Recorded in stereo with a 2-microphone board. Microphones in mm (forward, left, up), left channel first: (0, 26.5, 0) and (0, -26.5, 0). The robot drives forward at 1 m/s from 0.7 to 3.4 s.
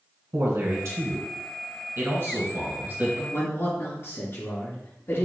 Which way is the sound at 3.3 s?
45° left (ahead or behind).